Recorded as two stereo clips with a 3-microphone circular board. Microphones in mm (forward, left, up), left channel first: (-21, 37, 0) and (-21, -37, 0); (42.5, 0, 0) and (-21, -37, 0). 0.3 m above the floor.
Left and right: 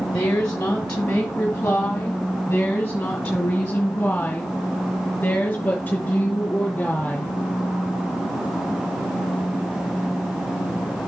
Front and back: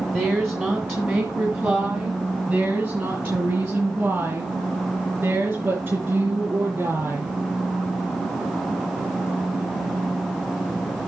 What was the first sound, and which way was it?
A woman speaking, 160° left.